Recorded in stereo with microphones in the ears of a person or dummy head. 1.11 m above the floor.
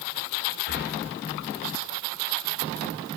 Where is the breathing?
40° left (ahead or behind), 0.6 m.